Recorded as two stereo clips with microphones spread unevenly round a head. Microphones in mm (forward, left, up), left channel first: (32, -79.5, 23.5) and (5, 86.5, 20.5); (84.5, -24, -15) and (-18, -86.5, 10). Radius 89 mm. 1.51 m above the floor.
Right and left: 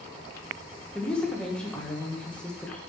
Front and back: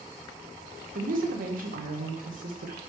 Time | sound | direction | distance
0.9 | a woman speaking | 165° right | 1.2 m